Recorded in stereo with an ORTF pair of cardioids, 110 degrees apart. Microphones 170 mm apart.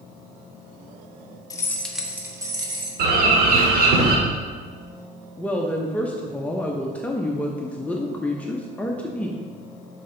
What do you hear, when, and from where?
1.5 s keys jangling: 20° left, 0.9 m; by 2.9 s 30° right, 1.4 m
3.0 s a bird: 65° right, 1.4 m
5.4 s a woman speaking: 10° left, 0.7 m